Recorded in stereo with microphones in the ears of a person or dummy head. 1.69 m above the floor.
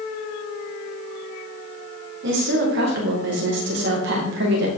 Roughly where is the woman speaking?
Right.